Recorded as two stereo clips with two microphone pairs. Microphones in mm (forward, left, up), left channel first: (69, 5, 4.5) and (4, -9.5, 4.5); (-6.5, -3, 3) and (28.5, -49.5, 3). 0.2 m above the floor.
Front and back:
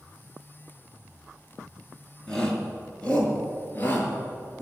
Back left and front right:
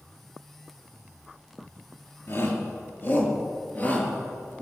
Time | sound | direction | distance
2.3 | a shout | 95° left | 4 m